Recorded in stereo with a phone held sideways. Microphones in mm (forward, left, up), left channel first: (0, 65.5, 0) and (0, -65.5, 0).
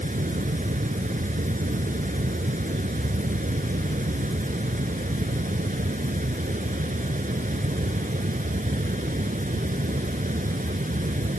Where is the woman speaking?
No woman speaking in this recording.